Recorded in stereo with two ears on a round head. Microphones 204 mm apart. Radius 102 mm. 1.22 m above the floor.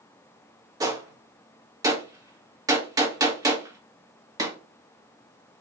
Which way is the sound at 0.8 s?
15° right (ahead or behind).